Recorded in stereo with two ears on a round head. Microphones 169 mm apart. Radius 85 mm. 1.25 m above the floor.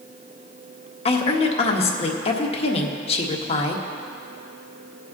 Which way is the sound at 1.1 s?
30° left (ahead or behind).